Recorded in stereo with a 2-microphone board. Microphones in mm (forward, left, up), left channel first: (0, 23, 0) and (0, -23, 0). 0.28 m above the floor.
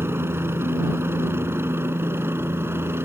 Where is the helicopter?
60° right (ahead or behind).